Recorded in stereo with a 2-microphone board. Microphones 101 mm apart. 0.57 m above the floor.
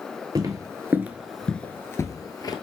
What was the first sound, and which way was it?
Footsteps, 40° right (ahead or behind).